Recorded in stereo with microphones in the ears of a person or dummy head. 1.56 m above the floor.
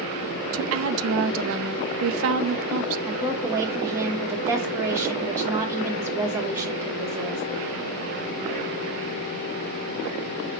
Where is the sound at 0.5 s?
75° right (ahead or behind), 0.5 m.